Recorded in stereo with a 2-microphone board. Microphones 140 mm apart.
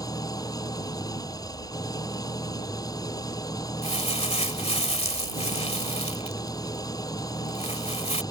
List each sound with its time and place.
0.0 s an engine running: 25° left (ahead or behind)
3.8 s crumpling: 45° left (ahead or behind)